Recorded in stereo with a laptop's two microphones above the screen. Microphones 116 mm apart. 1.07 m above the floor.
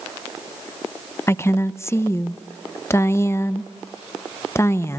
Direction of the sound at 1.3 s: 25° left (ahead or behind).